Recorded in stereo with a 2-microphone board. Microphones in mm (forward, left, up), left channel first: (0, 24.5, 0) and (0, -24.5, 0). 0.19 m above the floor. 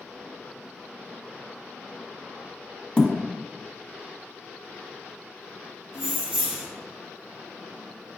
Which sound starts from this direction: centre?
Keys jangling, at 5.9 s.